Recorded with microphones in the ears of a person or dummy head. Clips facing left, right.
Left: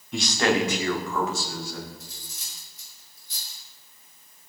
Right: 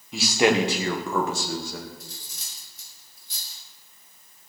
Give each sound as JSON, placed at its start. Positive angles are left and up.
{"t": 0.1, "sound": "a man speaking", "side_deg": 0, "distance_m": 1.6}
{"t": 2.0, "sound": "cutlery clinking", "side_deg": -80, "distance_m": 6.5}